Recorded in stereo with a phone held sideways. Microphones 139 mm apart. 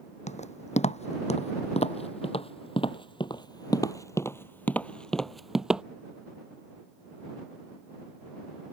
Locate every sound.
0.3 s footsteps: 55° left (ahead or behind); by 5.8 s 5° right (ahead or behind)